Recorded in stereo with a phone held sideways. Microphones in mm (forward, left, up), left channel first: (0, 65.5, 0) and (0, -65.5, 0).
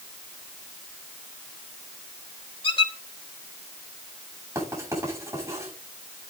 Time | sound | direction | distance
2.6 | a squeak | 50° left (ahead or behind) | 3 m
4.5 | writing | 25° right (ahead or behind) | 8.5 m